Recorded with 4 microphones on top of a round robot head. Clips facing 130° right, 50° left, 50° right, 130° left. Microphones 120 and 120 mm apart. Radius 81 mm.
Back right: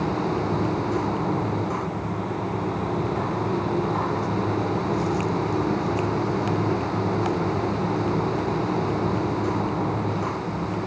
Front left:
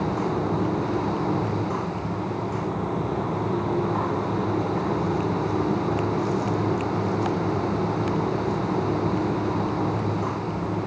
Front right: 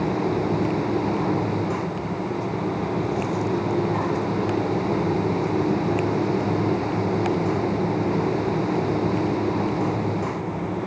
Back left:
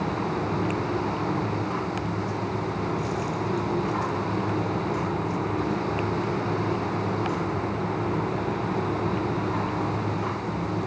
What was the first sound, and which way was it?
Only background noise.